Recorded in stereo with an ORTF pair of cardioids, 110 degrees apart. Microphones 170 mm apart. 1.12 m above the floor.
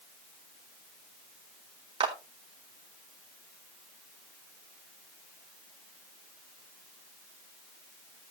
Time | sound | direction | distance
2.0 | a clap | 30° right | 3 m